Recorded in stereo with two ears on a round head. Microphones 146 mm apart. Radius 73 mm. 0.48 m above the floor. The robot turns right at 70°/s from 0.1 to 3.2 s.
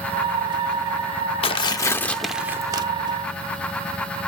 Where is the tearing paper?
120° left, 0.6 m; by 2.9 s 140° right, 0.6 m.